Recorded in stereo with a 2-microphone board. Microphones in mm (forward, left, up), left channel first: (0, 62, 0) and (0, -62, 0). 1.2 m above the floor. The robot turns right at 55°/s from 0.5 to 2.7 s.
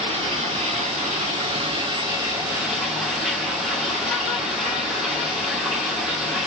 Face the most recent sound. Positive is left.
turn(degrees=-5)